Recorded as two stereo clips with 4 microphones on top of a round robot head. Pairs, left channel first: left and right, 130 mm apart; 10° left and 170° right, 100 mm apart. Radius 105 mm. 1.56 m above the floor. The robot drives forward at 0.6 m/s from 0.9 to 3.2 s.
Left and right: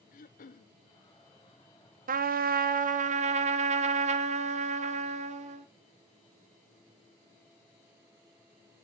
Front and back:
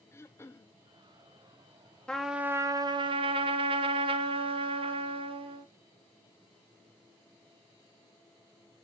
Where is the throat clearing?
75° left, 0.8 m.